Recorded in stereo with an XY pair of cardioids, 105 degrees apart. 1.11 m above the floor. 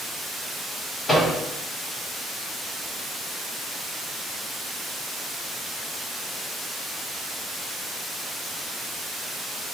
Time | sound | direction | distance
1.1 | a microwave | 30° left | 1.9 m